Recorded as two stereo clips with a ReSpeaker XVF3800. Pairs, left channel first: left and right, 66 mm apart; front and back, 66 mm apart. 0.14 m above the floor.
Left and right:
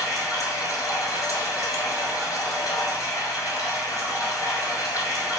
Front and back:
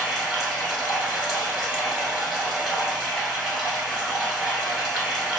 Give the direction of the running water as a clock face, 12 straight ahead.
9 o'clock.